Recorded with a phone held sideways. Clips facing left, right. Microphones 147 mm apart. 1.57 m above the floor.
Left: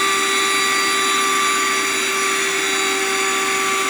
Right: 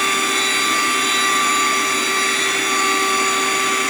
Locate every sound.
0.0 s a machine running: 60° right (ahead or behind), 6 m